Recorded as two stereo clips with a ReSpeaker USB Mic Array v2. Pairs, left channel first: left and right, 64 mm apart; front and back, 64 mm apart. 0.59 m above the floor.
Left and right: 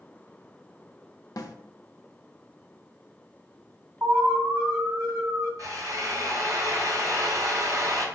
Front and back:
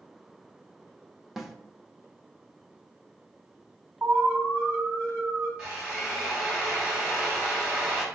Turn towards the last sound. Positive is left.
turn(degrees=-110)